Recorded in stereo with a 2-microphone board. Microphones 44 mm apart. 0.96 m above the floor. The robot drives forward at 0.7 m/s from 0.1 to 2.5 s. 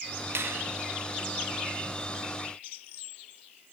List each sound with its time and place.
0.3 s a finger snap: 70° right (ahead or behind), 1.2 m